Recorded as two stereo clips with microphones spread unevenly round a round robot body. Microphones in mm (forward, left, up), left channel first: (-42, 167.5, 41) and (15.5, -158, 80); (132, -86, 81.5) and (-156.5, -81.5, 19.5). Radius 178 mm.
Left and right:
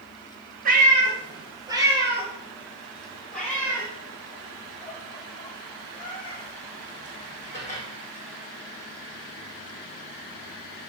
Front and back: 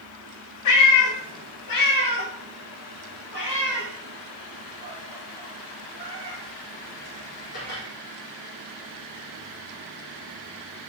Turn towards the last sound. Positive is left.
turn(degrees=30)